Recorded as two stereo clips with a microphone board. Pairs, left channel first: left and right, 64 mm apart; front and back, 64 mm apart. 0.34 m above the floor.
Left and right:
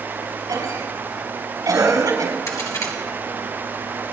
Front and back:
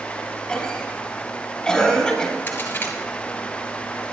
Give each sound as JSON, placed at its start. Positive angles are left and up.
{"t": 0.5, "sound": "a cough", "azimuth_deg": -80, "distance_m": 7.0}
{"t": 2.5, "sound": "a crack", "azimuth_deg": 60, "distance_m": 3.0}